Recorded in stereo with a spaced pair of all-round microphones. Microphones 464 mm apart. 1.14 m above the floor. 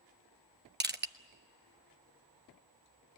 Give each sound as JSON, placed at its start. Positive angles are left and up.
{"t": 0.8, "sound": "crushing", "side_deg": -20, "distance_m": 1.0}